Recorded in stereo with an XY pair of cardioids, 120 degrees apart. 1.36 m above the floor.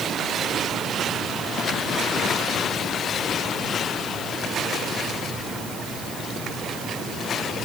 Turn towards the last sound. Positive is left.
No sound to turn to.